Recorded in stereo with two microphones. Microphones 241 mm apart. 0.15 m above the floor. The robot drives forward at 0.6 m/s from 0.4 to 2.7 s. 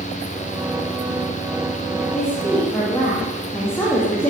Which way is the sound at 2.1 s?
10° left (ahead or behind).